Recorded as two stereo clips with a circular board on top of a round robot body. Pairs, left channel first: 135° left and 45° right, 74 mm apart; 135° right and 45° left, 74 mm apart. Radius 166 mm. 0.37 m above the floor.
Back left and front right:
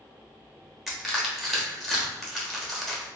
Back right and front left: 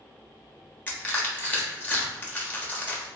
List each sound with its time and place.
0.9 s crushing: 140° right, 1.3 m